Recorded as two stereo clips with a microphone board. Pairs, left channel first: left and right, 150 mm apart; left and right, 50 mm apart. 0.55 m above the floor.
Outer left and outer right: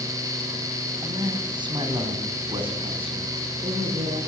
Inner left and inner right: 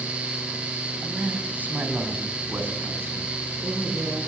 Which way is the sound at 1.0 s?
30° right (ahead or behind).